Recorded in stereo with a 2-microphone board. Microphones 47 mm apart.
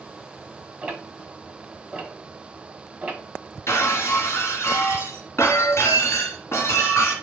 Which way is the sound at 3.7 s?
70° left (ahead or behind).